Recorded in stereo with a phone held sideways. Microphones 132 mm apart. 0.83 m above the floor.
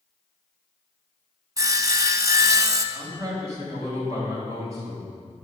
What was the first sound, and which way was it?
Sawing, 25° right (ahead or behind).